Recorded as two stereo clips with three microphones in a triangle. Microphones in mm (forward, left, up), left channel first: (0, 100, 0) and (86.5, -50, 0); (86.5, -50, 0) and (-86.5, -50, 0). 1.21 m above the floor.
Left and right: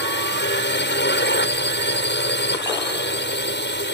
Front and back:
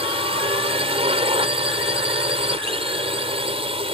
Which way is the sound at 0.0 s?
120° left.